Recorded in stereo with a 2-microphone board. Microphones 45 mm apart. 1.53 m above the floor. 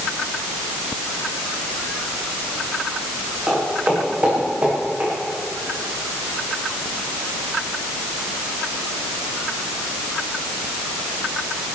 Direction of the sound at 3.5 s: 30° right (ahead or behind).